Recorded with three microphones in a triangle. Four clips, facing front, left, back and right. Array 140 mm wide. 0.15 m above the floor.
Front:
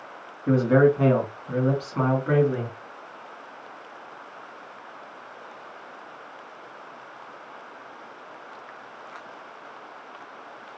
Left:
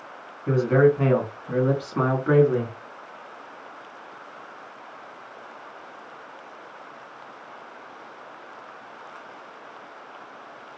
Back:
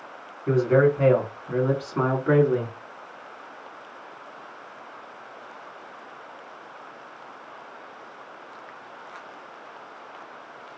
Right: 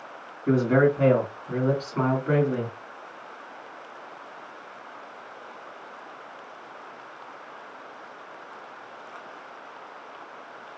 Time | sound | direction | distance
0.5 | a man speaking | 35° right | 1.2 m